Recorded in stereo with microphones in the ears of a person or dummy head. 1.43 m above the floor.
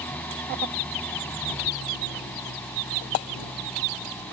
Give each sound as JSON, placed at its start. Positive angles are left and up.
{"t": 0.0, "sound": "an engine running", "side_deg": 5}